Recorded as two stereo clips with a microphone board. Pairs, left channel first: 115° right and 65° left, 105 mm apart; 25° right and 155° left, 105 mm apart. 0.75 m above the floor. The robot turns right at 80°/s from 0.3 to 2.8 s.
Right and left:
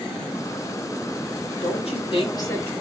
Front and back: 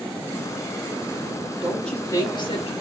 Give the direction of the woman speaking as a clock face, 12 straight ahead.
4 o'clock.